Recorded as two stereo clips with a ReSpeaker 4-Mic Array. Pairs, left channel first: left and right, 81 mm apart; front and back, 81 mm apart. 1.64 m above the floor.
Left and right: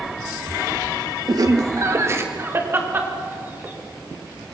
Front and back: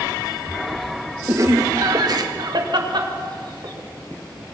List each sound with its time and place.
1.3 s laughter: 130° right, 1.8 m; by 3.7 s 160° right, 5 m